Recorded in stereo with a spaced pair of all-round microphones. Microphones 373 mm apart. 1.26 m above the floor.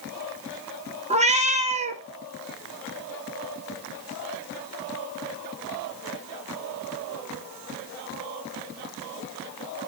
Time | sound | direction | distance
1.1 | a cat meowing | 20° right (ahead or behind) | 0.7 m